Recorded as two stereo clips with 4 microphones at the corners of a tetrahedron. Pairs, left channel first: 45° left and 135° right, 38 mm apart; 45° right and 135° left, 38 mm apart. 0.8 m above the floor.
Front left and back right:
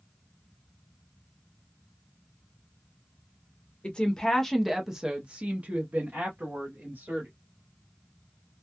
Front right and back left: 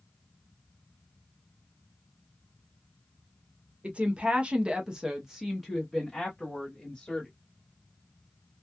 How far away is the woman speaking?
About 0.8 m.